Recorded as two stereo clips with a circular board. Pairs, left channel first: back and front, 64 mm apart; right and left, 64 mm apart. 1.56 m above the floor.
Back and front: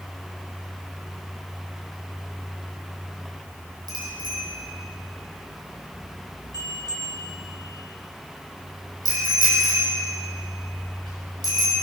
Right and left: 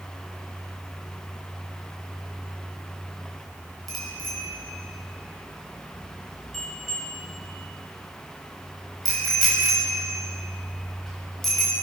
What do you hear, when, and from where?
3.9 s a bicycle bell: 5° right, 7 m